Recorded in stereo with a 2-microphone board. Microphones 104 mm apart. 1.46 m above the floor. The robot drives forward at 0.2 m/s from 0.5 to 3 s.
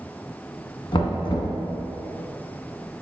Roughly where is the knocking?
Left.